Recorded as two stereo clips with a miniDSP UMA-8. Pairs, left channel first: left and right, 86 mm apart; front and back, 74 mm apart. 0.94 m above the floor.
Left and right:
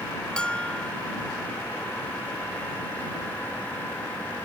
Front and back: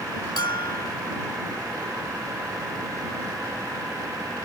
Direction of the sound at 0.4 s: 10° left.